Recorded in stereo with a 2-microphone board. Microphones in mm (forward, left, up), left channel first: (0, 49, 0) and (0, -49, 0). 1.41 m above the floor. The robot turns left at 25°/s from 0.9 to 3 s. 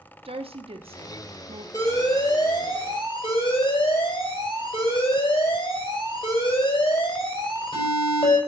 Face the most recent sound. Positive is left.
turn(degrees=120)